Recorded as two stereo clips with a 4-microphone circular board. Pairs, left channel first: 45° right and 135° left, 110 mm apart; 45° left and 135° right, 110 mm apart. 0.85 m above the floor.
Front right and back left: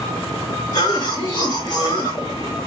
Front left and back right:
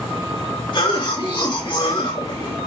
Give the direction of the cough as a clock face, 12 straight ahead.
12 o'clock.